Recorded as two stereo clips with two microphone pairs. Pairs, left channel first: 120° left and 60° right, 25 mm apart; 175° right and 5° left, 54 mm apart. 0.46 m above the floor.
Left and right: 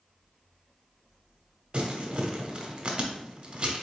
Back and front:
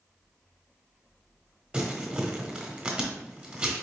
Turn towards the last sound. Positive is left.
turn(degrees=-45)